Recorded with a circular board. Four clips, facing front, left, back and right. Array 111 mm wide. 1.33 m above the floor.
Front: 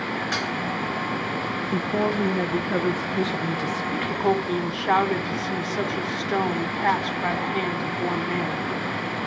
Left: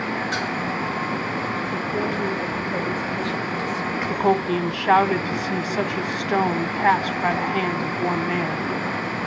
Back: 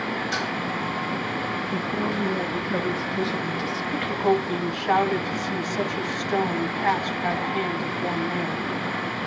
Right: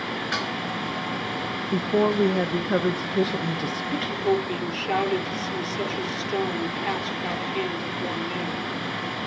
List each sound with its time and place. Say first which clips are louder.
0.3 s dishes clattering: left 3 dB, even; 40° right, 4.5 m
1.7 s a woman speaking: right 8 dB, front 5 dB; 70° right, 1.4 m
4.1 s a woman speaking: left 5 dB, back 1 dB; 80° left, 1.0 m